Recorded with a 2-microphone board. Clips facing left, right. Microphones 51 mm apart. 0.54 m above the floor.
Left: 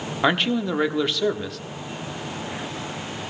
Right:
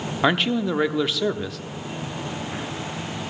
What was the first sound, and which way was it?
A man speaking, centre (ahead or behind).